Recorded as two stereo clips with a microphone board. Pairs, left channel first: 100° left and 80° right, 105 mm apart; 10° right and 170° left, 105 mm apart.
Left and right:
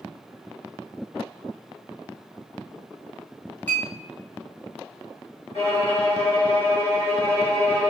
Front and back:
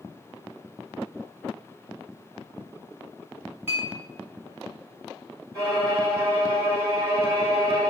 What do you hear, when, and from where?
3.7 s a clink: 140° left, 0.9 m
5.5 s a violin: 115° left, 1.6 m